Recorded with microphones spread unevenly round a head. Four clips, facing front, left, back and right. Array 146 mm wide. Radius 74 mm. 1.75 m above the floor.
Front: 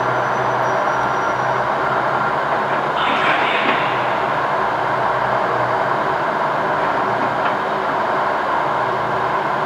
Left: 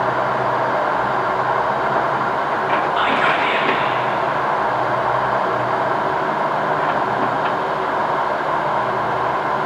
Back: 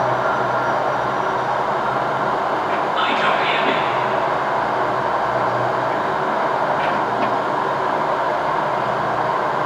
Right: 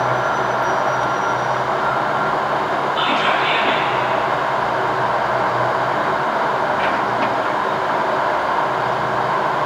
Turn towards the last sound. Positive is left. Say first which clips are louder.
# left 1 dB, front 1 dB
turn(degrees=85)